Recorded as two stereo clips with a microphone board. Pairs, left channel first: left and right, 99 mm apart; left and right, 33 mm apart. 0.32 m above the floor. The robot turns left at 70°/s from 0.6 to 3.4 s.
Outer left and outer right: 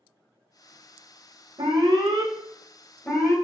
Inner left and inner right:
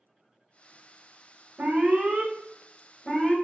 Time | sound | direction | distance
1.6 | an alarm | 95° right | 0.7 m